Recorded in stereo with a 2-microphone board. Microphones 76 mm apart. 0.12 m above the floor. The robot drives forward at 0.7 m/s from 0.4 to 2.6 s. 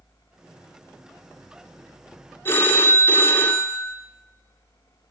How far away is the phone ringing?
About 0.8 m.